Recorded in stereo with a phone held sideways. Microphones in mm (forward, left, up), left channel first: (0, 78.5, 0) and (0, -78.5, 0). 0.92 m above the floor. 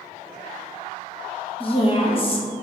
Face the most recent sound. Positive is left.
turn(degrees=35)  # may be behind; listen again after turning